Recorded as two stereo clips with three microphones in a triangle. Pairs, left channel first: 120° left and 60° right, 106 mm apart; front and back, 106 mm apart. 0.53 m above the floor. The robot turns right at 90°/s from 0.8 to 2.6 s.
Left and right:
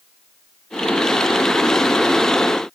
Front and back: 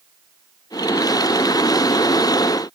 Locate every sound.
Only background noise.